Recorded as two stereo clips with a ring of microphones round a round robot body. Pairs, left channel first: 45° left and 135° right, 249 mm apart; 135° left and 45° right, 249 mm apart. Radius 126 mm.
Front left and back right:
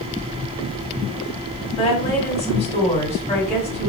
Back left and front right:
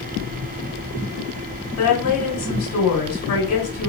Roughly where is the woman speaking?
Left.